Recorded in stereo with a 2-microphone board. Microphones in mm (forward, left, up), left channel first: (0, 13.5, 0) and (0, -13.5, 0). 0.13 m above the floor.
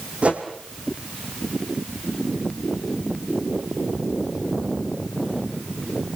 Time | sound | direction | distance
0.2 | a whoosh | 50° right (ahead or behind) | 3 m